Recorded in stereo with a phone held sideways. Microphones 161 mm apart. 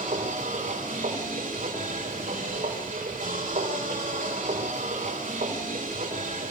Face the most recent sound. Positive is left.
turn(degrees=-55)  # may be behind; listen again after turning